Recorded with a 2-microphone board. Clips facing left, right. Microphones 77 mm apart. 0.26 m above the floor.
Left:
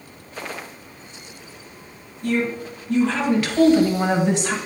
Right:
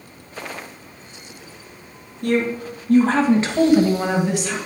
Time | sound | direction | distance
2.2 | a woman speaking | 60° right (ahead or behind) | 3 m